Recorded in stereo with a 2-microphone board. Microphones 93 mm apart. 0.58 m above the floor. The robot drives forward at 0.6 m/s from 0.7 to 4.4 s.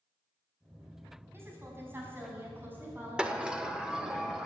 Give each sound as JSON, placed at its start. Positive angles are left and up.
{"t": 1.3, "sound": "a woman speaking", "side_deg": -25, "distance_m": 5.0}
{"t": 3.2, "sound": "a sliding door", "side_deg": -10, "distance_m": 1.0}